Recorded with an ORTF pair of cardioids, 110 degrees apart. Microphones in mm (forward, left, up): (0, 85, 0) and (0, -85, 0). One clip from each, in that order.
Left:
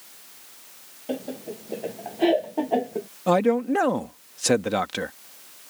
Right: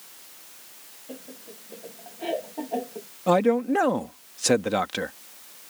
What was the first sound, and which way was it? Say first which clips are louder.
Laughter: left 12 dB; 65° left.